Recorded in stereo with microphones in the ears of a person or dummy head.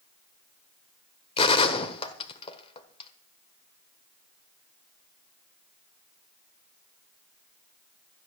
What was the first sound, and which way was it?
A gunshot, 35° left (ahead or behind).